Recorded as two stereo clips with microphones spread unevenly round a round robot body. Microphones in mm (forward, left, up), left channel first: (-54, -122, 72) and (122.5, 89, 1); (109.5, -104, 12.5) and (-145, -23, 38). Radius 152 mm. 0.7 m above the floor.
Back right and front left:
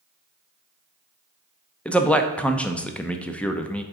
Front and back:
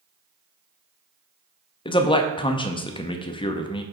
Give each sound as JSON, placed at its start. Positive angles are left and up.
{"t": 1.9, "sound": "a man speaking", "azimuth_deg": -15, "distance_m": 0.6}